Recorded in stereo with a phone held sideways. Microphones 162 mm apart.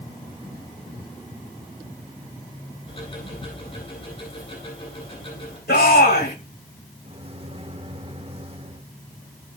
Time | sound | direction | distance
2.9 | ticking | 40° left (ahead or behind) | 9 m
5.7 | a shout | 75° left (ahead or behind) | 2 m
7.0 | a microwave | 35° right (ahead or behind) | 1.4 m